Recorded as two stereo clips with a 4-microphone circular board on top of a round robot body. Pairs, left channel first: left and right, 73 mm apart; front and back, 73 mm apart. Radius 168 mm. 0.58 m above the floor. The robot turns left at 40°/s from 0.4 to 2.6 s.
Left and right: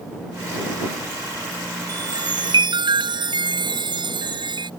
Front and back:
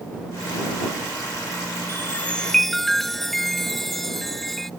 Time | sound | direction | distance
1.9 | a chime | 60° right | ?